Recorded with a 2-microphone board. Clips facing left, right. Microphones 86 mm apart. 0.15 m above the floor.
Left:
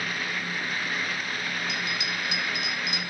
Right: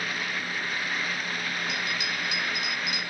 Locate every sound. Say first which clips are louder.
1.7 s a bell: even; 25° left (ahead or behind), 1.0 m